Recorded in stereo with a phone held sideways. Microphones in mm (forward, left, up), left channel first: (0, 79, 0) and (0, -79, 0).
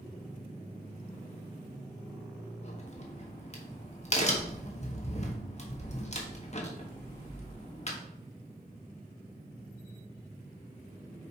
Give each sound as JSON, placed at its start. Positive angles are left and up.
{"t": 2.6, "sound": "a crack", "side_deg": 45, "distance_m": 1.3}